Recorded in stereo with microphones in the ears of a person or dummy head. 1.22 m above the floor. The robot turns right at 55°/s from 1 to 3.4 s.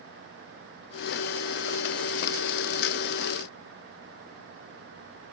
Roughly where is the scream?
I don't hear a scream.